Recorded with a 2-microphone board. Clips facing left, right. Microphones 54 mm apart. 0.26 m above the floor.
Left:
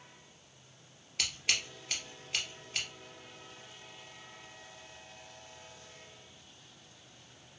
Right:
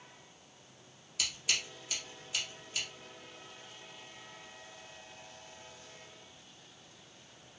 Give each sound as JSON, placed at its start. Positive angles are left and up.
{"t": 1.2, "sound": "scissors", "side_deg": 50, "distance_m": 1.6}